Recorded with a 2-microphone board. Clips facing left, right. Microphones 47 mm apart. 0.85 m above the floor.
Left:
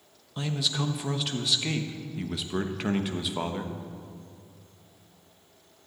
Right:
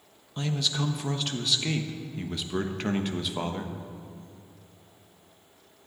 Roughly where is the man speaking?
Centre.